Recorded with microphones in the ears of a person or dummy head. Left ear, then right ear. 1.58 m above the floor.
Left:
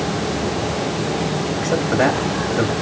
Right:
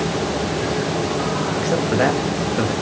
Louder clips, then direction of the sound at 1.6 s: Left 2 dB; 5° left (ahead or behind).